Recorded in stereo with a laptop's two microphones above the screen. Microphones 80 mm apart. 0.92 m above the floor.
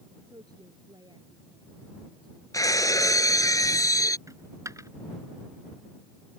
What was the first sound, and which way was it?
A woman speaking, 60° right (ahead or behind).